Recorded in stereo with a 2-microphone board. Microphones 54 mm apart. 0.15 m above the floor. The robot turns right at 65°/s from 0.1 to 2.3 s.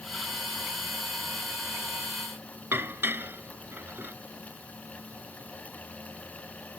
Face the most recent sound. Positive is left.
turn(degrees=-45)  # may be behind; listen again after turning